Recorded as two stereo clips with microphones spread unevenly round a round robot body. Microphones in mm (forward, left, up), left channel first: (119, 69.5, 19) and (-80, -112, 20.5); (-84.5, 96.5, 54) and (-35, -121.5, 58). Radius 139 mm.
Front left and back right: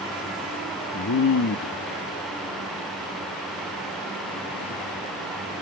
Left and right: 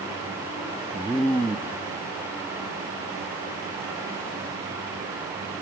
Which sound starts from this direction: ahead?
A man speaking, at 0.9 s.